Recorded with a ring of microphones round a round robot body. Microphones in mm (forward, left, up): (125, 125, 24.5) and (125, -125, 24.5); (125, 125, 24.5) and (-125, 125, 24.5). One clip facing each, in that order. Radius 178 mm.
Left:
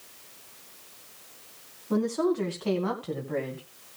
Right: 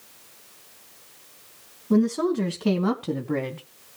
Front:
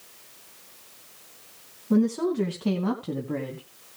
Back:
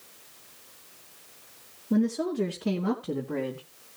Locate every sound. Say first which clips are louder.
1.9 s a woman speaking: right 4 dB, front 3 dB; 35° right, 4 m; by 3.6 s 75° right, 2.5 m